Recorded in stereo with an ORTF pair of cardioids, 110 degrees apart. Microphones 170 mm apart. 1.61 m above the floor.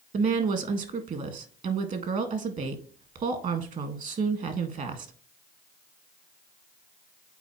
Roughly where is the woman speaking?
Ahead right.